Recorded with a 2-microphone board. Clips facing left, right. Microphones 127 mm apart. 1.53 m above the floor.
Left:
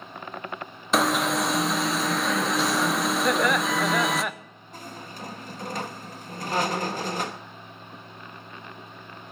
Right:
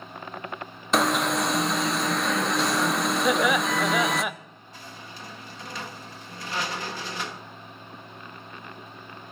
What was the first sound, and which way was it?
An alarm, centre (ahead or behind).